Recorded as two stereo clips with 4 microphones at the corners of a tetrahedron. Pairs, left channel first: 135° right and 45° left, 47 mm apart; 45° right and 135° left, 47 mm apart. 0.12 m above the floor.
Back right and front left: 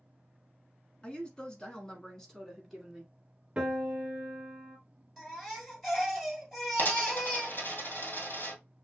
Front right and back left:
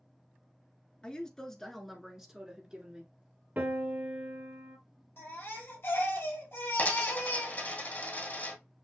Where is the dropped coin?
95° right, 2 m.